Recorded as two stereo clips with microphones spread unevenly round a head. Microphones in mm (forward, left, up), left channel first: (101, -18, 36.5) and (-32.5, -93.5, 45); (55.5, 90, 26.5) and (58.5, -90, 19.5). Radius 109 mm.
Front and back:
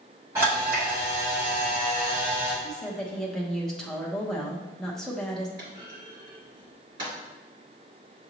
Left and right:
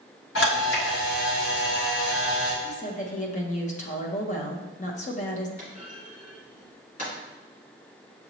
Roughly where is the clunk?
Behind left.